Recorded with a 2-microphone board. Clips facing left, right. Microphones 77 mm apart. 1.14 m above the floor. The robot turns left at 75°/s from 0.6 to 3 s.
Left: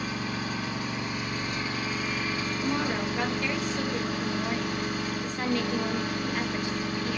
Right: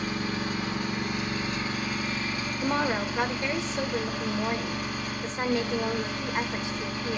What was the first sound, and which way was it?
An engine running, 80° right.